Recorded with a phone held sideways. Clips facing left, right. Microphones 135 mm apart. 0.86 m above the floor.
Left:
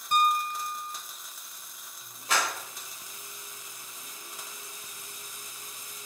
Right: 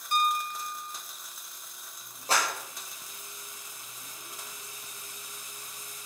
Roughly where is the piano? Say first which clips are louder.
Left 3 dB; left.